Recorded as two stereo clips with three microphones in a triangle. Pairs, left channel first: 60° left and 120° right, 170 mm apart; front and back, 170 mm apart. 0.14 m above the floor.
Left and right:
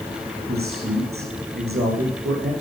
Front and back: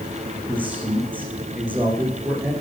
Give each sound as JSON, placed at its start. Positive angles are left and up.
{"t": 0.5, "sound": "a man speaking", "azimuth_deg": -100, "distance_m": 8.0}